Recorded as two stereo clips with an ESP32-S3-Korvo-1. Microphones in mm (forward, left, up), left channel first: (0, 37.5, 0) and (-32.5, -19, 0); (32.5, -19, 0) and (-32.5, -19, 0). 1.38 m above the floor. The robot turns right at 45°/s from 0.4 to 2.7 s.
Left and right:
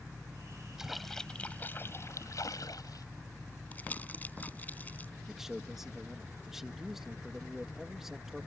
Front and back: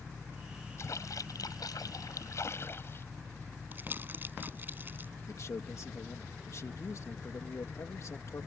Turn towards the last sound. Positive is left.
turn(degrees=-35)